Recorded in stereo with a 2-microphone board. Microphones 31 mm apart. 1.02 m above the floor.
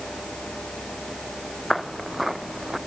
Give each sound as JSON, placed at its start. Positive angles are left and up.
{"t": 1.7, "sound": "footsteps", "side_deg": 0}